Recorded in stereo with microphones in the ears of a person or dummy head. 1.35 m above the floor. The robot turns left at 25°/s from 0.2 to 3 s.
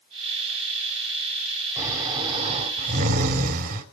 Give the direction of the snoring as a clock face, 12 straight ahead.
12 o'clock.